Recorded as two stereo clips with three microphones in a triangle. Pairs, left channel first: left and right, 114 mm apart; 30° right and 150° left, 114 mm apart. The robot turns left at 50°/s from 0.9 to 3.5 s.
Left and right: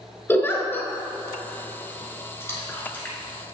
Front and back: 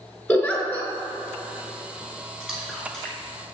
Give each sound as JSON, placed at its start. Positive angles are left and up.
{"t": 0.3, "sound": "a giggle", "azimuth_deg": 35, "distance_m": 1.1}
{"t": 2.4, "sound": "a splash", "azimuth_deg": 75, "distance_m": 1.7}